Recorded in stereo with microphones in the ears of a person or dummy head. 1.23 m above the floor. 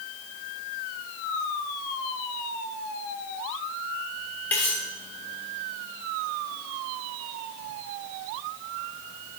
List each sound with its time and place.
4.5 s cutlery clinking: 10° left (ahead or behind), 1.8 m